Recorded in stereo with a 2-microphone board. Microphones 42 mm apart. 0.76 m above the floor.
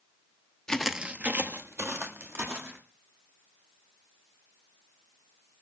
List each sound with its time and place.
0.7 s footsteps: 15° left (ahead or behind), 0.8 m; by 2.8 s 75° right (ahead or behind), 3 m